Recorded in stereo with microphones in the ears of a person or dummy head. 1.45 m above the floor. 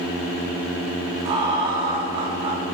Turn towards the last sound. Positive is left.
turn(degrees=-30)  # may be behind; listen again after turning